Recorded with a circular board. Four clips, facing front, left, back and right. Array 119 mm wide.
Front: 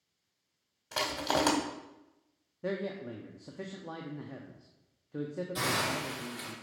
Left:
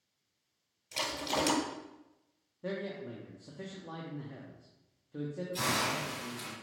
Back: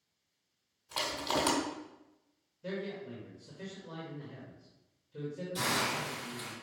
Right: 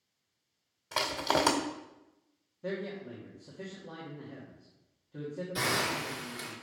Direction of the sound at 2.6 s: 10° left.